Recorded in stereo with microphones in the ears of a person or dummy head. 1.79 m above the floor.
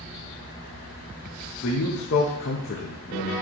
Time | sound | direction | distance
1.6 | a man speaking | 60° left (ahead or behind) | 0.7 m